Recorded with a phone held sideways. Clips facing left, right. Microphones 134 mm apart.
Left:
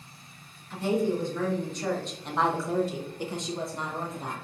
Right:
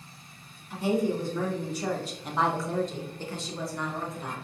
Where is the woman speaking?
15° right (ahead or behind), 1.6 m; by 4.3 s 25° left (ahead or behind), 0.8 m.